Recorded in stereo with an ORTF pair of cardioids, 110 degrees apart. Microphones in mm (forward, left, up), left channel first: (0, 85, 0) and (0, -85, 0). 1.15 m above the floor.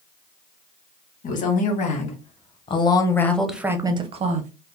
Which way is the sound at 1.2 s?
55° left.